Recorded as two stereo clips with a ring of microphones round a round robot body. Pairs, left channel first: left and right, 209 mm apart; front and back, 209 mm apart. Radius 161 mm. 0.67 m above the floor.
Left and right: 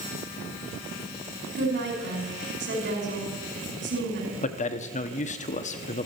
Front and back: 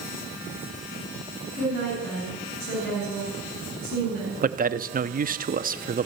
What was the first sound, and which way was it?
A woman speaking, 55° right.